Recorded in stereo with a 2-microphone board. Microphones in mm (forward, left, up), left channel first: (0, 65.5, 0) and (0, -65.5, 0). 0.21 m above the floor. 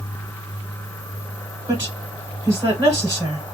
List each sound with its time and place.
1.7 s a woman speaking: 25° right (ahead or behind), 1.1 m